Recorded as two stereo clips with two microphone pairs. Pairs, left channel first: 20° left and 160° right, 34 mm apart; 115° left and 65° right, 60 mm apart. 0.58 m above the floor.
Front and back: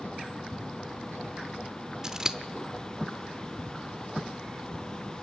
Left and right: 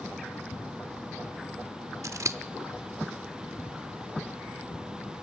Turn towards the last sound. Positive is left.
turn(degrees=-90)